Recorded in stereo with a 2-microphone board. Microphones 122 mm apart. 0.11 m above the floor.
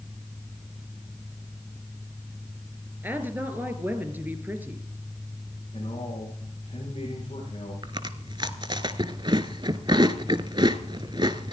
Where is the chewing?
45° right (ahead or behind), 0.8 m.